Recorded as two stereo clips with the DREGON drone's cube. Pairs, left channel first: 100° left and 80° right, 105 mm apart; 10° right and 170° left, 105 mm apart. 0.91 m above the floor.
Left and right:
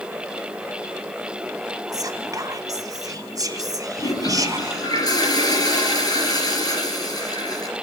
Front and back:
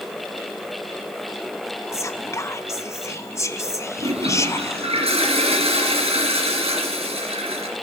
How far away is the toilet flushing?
About 3.5 m.